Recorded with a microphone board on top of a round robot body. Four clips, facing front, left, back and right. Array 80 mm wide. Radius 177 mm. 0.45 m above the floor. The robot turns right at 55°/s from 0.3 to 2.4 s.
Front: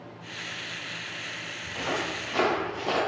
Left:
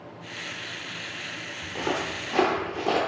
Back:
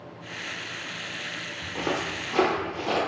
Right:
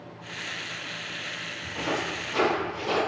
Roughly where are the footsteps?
Behind left.